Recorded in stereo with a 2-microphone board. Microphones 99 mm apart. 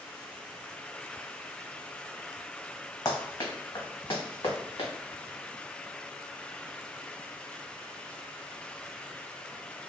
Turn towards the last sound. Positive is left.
turn(degrees=50)  # may be behind; listen again after turning